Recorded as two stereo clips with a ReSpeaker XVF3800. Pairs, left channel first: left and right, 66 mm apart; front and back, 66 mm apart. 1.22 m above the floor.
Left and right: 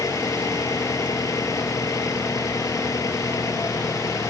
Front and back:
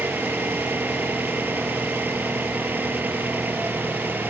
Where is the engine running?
120° left.